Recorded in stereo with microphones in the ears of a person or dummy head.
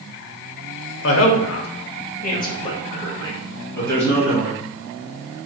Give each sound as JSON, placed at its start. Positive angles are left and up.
{"t": 1.0, "sound": "a woman speaking", "side_deg": 75, "distance_m": 0.8}